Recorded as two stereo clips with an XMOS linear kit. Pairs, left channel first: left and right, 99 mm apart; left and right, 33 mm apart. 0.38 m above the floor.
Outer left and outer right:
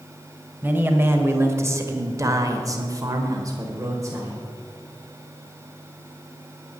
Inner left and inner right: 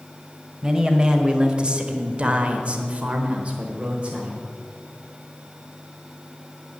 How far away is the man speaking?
About 1.5 m.